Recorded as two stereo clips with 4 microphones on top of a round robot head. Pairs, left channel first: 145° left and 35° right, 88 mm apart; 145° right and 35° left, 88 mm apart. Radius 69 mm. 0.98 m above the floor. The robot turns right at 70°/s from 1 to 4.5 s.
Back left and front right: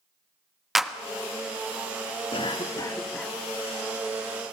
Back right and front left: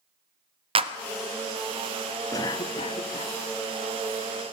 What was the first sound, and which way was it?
A clap, 50° left.